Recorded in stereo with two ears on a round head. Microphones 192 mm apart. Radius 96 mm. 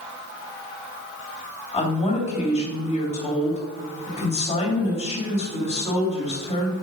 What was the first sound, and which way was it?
A woman speaking, 30° left (ahead or behind).